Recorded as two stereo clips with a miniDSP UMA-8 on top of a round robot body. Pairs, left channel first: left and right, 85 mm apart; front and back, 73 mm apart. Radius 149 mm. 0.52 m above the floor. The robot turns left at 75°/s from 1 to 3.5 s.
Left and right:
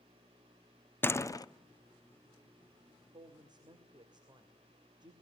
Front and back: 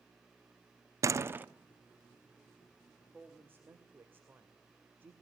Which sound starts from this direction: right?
A woman speaking, at 3.1 s.